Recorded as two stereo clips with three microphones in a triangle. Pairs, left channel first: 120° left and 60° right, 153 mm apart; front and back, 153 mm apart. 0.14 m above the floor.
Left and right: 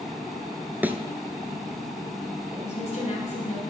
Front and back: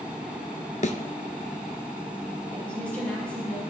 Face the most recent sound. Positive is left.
turn(degrees=80)